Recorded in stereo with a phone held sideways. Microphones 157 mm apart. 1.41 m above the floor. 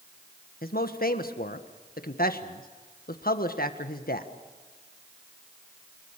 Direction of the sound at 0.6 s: 70° left (ahead or behind).